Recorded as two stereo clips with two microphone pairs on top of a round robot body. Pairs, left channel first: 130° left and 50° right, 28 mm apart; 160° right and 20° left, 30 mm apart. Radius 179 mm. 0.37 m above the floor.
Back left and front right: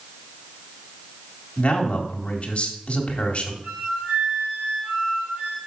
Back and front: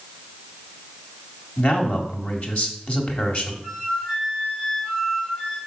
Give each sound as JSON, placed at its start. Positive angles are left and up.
{"t": 1.6, "sound": "a man speaking", "azimuth_deg": 175, "distance_m": 1.9}
{"t": 3.6, "sound": "a flute", "azimuth_deg": -85, "distance_m": 3.0}